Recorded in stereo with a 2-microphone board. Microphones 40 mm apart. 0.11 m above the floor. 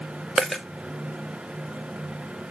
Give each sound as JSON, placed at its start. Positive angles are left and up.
{"t": 0.4, "sound": "a dropped coin", "side_deg": -10, "distance_m": 1.2}